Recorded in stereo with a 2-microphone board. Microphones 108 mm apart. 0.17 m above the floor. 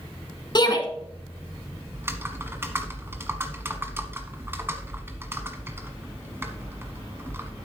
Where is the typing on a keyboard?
20° right (ahead or behind), 1.3 m.